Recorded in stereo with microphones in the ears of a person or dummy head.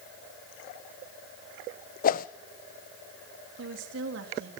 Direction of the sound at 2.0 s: 55° left (ahead or behind).